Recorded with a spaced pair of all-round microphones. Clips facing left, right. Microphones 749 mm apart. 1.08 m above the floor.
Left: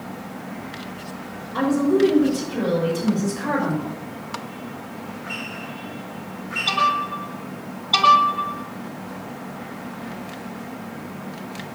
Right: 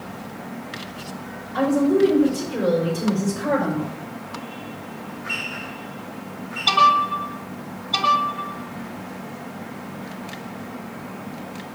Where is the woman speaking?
55° right (ahead or behind), 5 m; by 3.9 s 70° right (ahead or behind), 5 m.